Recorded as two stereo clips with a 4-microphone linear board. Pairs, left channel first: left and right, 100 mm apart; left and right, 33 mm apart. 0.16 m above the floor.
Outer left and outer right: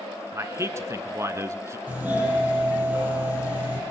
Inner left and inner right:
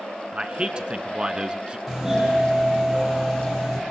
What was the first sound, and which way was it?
A man speaking, 30° right (ahead or behind).